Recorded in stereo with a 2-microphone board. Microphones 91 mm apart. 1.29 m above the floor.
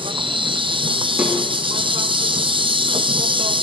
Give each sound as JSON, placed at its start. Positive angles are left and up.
{"t": 0.0, "sound": "an insect", "side_deg": -65, "distance_m": 0.7}
{"t": 1.2, "sound": "a snare drum", "side_deg": -10, "distance_m": 4.5}